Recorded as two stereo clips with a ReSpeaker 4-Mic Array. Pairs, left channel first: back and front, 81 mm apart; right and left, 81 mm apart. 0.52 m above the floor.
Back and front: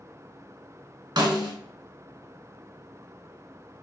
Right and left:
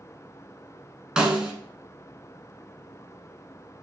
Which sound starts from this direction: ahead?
A snare drum, at 1.2 s.